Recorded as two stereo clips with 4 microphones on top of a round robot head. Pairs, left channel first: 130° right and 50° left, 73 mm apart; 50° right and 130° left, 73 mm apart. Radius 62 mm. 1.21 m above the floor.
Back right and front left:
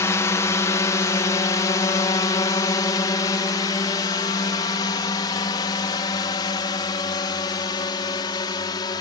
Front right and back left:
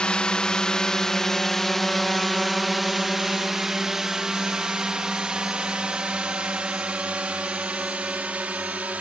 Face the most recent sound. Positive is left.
turn(degrees=-160)